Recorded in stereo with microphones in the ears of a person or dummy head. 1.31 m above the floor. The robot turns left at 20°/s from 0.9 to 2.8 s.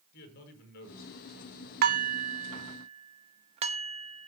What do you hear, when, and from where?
0.1 s a man speaking: 55° left (ahead or behind), 6 m; by 1.7 s 40° left (ahead or behind), 6 m
1.8 s dishes clattering: 50° right (ahead or behind), 1.1 m; by 4.3 s 30° right (ahead or behind), 1.1 m